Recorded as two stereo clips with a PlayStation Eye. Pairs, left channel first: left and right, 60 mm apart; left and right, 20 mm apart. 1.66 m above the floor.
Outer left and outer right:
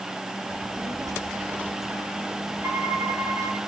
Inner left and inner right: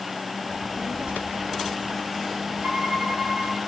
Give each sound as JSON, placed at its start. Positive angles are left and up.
{"t": 0.5, "sound": "a child speaking", "side_deg": -70, "distance_m": 2.5}
{"t": 2.6, "sound": "a violin", "side_deg": -35, "distance_m": 4.0}